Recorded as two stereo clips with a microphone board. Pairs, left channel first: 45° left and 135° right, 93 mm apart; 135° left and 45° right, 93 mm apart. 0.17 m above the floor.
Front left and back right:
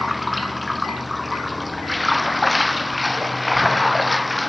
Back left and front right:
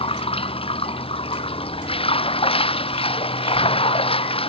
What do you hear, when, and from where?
0.0 s running water: 135° left